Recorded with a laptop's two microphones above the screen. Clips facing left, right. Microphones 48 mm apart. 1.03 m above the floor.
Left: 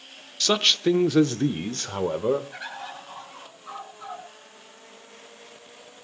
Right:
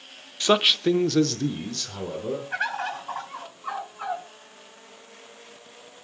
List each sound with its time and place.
0.4 s a man speaking: 25° right (ahead or behind), 0.8 m; by 2.4 s 55° left (ahead or behind), 1.4 m
2.5 s a bird: 65° right (ahead or behind), 4.5 m